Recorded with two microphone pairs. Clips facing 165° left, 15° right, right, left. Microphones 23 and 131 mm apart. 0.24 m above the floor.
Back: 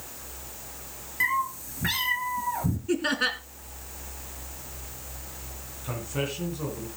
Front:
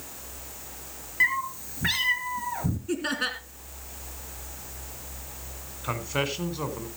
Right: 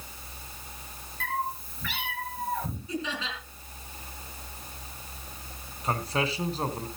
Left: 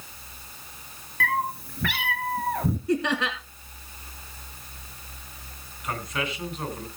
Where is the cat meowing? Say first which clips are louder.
Front 1 dB, left 5 dB; 70° left, 1.8 m.